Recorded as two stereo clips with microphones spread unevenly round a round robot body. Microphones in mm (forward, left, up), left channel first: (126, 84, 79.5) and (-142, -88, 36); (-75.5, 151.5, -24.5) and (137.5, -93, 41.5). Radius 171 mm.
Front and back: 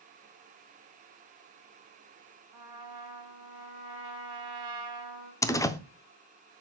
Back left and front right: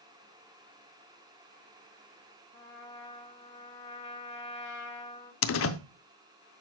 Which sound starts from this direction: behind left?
A door slam, at 5.4 s.